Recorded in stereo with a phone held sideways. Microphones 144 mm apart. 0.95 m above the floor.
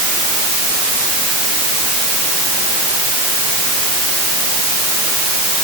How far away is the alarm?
No alarm in this recording.